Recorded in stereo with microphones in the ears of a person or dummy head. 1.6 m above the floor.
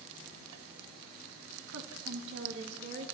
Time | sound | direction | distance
1.7 | a woman speaking | 75° right (ahead or behind) | 1.8 m